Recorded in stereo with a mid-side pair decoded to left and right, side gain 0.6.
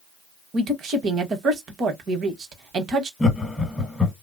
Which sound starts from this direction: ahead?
Laughter, at 3.2 s.